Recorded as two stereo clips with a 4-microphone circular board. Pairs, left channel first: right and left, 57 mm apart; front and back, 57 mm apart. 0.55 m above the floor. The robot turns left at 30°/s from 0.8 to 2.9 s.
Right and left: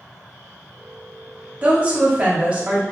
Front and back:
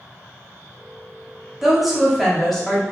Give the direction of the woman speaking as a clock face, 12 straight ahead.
9 o'clock.